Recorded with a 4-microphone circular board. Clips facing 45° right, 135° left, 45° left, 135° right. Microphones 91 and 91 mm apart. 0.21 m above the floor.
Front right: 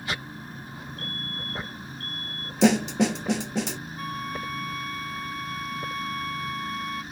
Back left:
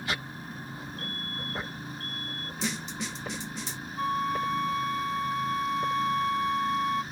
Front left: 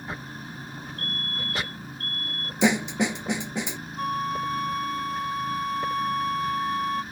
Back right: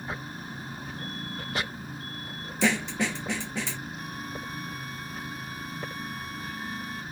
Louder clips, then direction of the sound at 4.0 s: Back left 7 dB, front left 10 dB; 70° left.